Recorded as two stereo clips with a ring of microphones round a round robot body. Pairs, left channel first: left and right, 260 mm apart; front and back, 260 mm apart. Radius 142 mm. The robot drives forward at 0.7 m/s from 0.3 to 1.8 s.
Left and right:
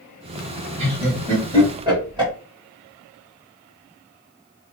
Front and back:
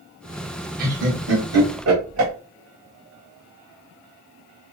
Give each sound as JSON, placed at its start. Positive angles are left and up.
{"t": 0.8, "sound": "laughter", "azimuth_deg": -145, "distance_m": 1.2}